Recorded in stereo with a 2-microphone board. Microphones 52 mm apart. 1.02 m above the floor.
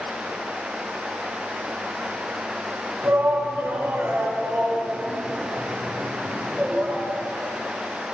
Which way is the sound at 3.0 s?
50° right (ahead or behind).